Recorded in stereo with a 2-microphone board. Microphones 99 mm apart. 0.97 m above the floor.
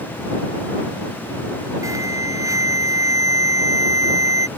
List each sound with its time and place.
1.8 s an alarm: 35° right (ahead or behind)